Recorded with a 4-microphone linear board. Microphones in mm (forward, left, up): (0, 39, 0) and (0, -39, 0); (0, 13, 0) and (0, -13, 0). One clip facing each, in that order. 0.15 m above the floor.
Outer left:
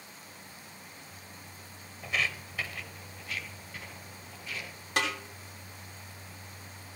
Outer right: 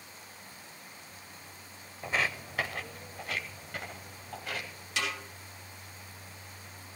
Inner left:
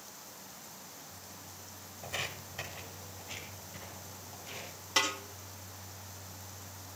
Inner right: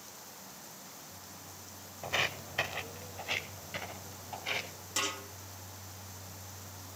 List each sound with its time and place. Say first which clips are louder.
2.0 s footsteps: outer right 2 dB, inner right 6 dB; 30° right (ahead or behind), 0.6 m; by 4.9 s 80° right, 3.5 m
5.0 s a snare drum: outer left 4 dB, inner left 4 dB; 45° left (ahead or behind), 5.5 m